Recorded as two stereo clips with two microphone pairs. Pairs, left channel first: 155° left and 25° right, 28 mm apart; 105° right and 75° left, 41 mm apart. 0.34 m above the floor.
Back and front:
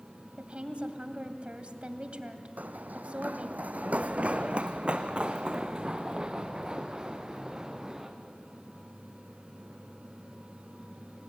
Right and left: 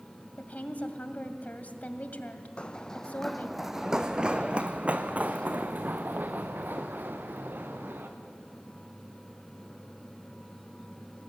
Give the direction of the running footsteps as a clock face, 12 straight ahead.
1 o'clock.